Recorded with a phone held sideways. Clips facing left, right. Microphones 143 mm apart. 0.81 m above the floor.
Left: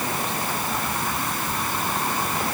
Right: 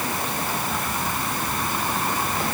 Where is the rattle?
No rattle in this recording.